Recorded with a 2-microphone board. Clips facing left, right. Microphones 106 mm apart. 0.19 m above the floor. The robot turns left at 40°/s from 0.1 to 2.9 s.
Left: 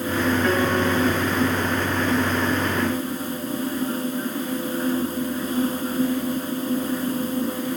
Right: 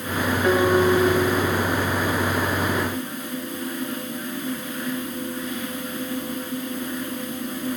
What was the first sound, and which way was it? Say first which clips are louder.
A piano: right 3 dB; 20° right.